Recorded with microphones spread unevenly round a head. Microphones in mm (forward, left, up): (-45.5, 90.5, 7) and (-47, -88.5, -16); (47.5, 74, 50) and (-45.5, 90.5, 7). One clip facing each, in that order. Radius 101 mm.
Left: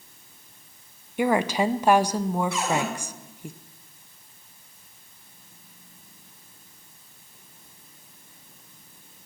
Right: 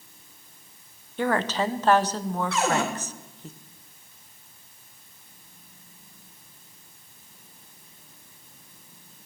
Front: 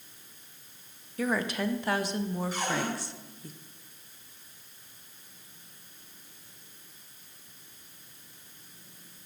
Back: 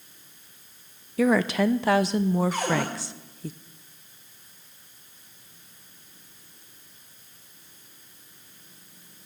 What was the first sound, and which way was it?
A woman speaking, 165° left.